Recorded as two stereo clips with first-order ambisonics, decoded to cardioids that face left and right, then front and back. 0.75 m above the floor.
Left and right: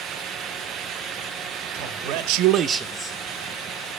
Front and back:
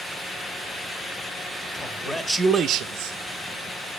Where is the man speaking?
70° right, 1.4 m; by 3.2 s 155° left, 0.9 m.